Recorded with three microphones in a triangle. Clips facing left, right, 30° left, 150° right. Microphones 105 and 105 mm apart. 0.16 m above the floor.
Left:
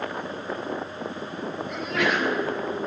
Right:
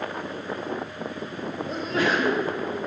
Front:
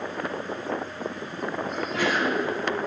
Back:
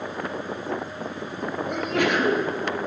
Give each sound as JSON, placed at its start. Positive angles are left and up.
{"t": 1.7, "sound": "a sneeze", "azimuth_deg": -145, "distance_m": 2.5}